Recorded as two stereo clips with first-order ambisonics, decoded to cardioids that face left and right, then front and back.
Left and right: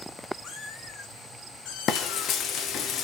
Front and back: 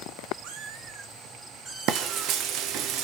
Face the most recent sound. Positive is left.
turn(degrees=140)